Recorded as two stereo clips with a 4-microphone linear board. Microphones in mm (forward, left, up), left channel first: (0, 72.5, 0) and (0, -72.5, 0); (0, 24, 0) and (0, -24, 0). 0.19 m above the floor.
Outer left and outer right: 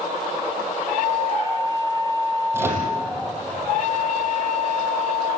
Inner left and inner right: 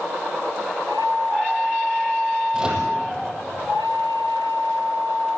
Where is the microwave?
15° right (ahead or behind), 5.5 m.